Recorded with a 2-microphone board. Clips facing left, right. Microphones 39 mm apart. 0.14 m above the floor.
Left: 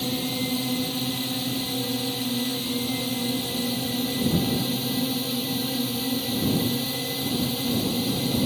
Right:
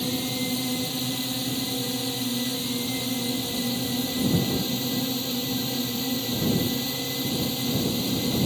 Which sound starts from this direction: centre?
A drone, at 0.0 s.